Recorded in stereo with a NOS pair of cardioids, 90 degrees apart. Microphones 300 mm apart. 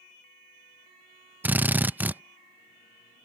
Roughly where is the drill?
Ahead.